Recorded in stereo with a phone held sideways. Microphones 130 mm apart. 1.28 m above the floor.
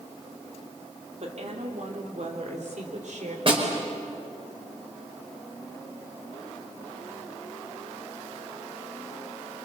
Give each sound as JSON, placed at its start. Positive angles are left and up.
{"t": 1.2, "sound": "a woman speaking", "side_deg": -60, "distance_m": 3.5}
{"t": 3.5, "sound": "a snare drum", "side_deg": -45, "distance_m": 5.0}